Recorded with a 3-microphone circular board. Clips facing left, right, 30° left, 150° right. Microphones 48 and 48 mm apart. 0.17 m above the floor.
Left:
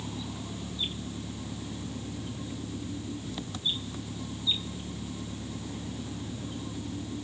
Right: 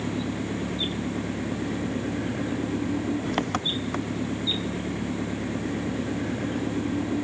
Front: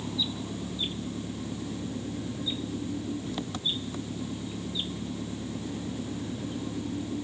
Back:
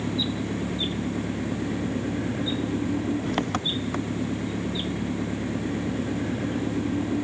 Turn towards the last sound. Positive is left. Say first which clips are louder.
# right 9 dB, back 6 dB
turn(degrees=-120)